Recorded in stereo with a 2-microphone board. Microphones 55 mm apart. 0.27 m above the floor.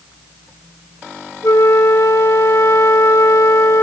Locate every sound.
1.4 s a flute: 50° left (ahead or behind), 1.1 m